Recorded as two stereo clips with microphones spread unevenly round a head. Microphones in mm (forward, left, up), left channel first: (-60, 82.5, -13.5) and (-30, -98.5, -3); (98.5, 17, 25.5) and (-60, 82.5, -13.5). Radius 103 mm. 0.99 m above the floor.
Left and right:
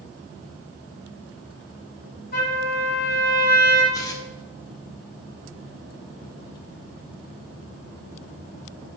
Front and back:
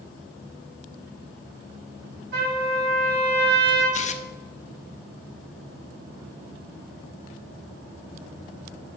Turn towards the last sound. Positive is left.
turn(degrees=25)